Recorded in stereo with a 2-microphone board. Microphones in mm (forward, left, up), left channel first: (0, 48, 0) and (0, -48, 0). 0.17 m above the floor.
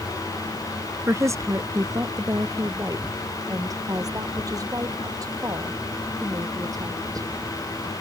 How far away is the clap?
No clap in this recording.